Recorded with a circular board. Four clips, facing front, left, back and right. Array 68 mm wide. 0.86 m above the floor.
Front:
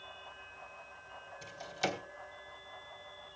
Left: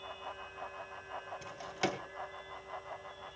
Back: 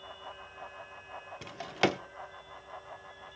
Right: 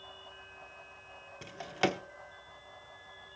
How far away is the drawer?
About 1.0 m.